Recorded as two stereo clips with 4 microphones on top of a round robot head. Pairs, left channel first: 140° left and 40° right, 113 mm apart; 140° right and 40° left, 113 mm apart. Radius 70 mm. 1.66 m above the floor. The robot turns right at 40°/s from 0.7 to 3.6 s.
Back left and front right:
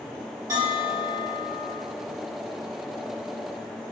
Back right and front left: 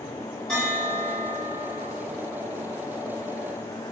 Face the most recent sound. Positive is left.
turn(degrees=55)